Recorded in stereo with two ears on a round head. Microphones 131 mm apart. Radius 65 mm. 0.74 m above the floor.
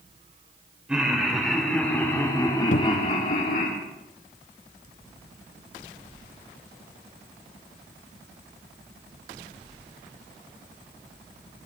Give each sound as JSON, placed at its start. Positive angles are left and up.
{"t": 0.9, "sound": "laughter", "side_deg": -5, "distance_m": 3.0}
{"t": 2.7, "sound": "a cupboard door", "side_deg": 60, "distance_m": 0.6}